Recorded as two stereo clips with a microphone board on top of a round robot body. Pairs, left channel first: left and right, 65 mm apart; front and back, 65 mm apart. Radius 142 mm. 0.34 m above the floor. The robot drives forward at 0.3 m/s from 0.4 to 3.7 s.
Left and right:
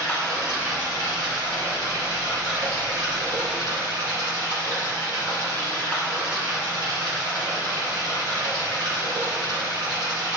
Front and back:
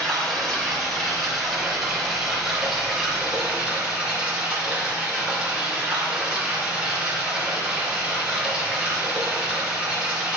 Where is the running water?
80° right, 2.5 m; by 10.4 s 100° right, 2.5 m.